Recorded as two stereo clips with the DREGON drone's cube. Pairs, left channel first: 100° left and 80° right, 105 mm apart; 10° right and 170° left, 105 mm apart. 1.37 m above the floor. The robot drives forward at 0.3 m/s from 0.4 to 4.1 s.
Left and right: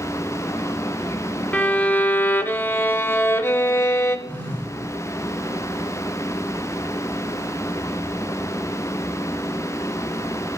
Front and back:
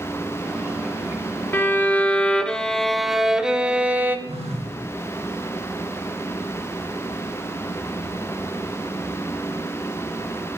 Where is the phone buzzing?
Straight behind, 4.5 m.